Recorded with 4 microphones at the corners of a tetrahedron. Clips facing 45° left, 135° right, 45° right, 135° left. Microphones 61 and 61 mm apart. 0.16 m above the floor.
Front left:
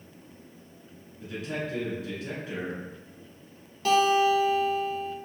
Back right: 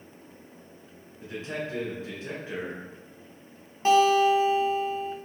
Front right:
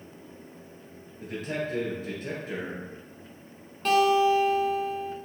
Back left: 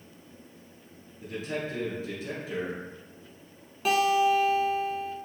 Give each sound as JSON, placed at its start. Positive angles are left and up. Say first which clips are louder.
{"t": 1.2, "sound": "a man speaking", "louder": "even, front right 1 dB", "azimuth_deg": -80, "distance_m": 1.9}
{"t": 3.9, "sound": "a guitar", "louder": "back right 2 dB, front right 2 dB", "azimuth_deg": -150, "distance_m": 0.6}